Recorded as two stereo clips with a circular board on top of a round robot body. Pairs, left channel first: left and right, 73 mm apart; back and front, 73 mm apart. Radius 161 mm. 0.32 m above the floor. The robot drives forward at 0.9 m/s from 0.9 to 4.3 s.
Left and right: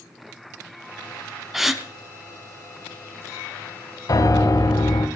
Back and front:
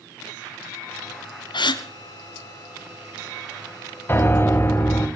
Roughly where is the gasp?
Behind.